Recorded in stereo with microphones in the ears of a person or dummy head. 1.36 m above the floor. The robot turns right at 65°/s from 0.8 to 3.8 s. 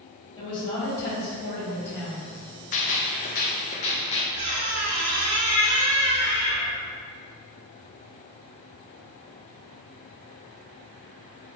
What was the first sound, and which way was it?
A woman speaking, 25° left.